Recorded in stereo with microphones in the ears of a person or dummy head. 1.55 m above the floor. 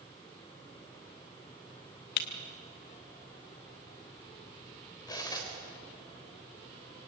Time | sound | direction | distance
2.2 | breaking glass | 50° left (ahead or behind) | 1.5 m
5.1 | cutlery clinking | 25° left (ahead or behind) | 3.5 m